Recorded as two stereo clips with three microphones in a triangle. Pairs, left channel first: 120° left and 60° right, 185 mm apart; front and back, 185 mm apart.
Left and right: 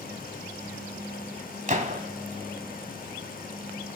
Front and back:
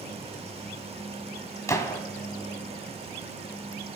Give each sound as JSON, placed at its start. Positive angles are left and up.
{"t": 1.7, "sound": "a gunshot", "azimuth_deg": -65, "distance_m": 1.4}